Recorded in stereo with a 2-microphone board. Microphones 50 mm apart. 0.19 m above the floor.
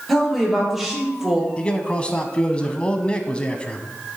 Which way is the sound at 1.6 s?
20° left (ahead or behind).